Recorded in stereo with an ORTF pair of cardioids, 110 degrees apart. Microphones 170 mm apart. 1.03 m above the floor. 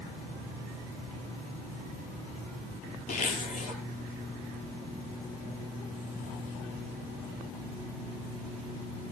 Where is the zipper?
50° left, 6 m.